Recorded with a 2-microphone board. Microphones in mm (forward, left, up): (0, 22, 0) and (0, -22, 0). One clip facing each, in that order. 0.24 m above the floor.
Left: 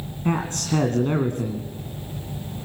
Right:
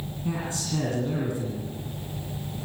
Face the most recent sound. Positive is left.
turn(degrees=55)  # may be behind; listen again after turning